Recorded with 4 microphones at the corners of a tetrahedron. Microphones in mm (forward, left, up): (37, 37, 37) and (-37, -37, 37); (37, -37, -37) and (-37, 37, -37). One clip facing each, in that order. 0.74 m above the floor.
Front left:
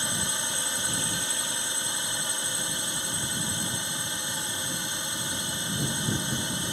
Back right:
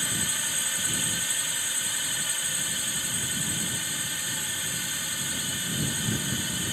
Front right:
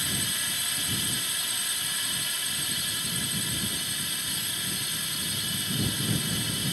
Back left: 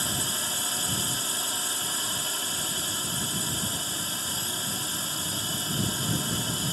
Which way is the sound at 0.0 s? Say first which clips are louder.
Front left 2 dB, back left 2 dB; 100° left.